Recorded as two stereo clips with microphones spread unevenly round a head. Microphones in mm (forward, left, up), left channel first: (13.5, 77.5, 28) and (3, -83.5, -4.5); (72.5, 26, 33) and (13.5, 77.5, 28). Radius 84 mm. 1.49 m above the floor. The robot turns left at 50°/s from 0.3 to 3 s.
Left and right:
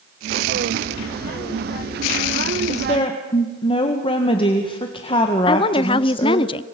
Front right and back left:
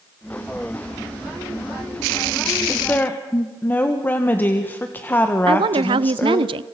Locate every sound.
2.7 s a woman speaking: 40° left, 1.8 m; by 6.5 s 25° left, 1.8 m
5.5 s a woman speaking: 150° left, 0.6 m